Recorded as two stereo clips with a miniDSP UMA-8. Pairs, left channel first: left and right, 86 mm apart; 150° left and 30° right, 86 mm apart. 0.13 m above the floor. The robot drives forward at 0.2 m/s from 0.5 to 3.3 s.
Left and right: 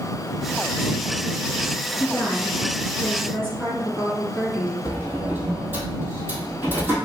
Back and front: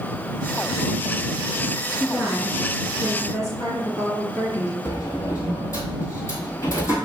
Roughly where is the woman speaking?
Behind.